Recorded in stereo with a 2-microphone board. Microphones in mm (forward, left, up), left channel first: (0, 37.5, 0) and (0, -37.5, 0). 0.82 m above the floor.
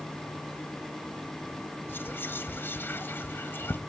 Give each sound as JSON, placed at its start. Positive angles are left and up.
{"t": 1.9, "sound": "whispering", "side_deg": 25, "distance_m": 0.7}